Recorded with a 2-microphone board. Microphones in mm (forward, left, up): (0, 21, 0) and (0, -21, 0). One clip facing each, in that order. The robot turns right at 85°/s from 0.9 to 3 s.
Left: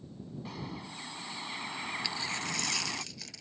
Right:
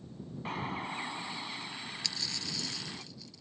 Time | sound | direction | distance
0.5 | a bird | 45° right | ?
2.0 | a dropped coin | 15° left | ?